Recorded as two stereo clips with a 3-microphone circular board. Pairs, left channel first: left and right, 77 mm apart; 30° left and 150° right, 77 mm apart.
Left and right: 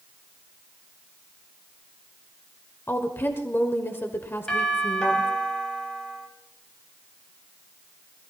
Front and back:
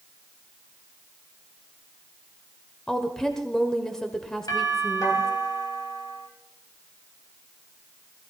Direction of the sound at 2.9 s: 105° left.